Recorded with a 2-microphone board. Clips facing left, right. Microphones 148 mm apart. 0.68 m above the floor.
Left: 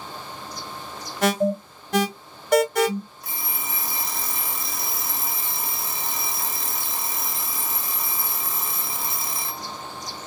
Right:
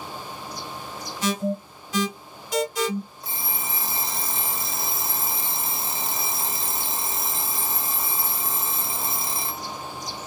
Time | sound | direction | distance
1.2 | an alarm | 60° left (ahead or behind) | 1.3 m
3.2 | an alarm clock | 25° right (ahead or behind) | 1.2 m